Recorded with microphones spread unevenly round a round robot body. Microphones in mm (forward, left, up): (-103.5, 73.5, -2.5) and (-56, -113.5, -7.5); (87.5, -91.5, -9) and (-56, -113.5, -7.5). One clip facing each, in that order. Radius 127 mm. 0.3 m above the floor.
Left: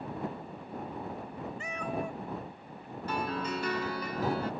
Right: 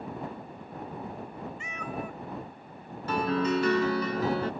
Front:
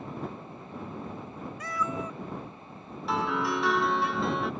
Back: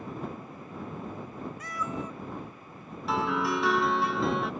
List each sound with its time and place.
1.6 s a cat meowing: 40° left; by 4.1 s 20° left
3.1 s a piano: 80° right